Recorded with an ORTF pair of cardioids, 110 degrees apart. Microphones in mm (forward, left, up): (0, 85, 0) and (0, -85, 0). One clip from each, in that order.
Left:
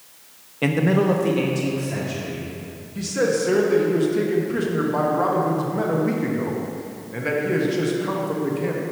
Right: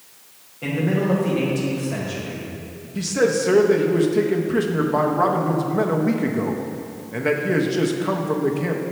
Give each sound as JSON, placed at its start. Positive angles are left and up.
{"t": 0.6, "sound": "a man speaking", "azimuth_deg": 60, "distance_m": 0.8}
{"t": 3.0, "sound": "a man speaking", "azimuth_deg": -15, "distance_m": 0.8}